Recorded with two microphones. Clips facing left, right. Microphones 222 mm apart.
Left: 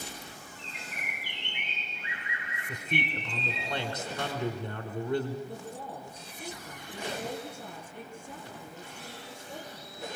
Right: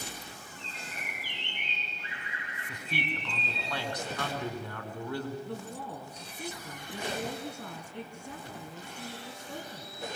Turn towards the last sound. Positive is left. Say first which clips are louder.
# right 1 dB
turn(degrees=-80)